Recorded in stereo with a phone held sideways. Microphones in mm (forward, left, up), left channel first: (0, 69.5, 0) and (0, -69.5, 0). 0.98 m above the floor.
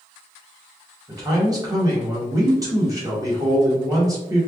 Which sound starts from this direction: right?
A man speaking, at 1.1 s.